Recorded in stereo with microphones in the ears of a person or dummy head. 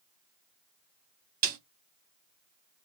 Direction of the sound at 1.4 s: 50° right (ahead or behind).